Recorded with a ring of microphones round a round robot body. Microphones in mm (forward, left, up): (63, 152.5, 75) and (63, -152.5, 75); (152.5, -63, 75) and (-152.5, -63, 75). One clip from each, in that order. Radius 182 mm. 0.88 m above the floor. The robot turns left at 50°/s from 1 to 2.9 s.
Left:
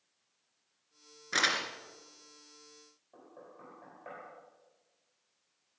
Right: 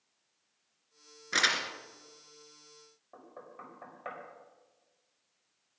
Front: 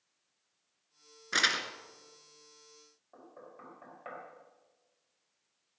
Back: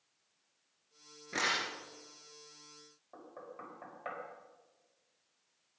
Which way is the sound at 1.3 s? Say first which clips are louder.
Right 2 dB, front 4 dB; straight ahead.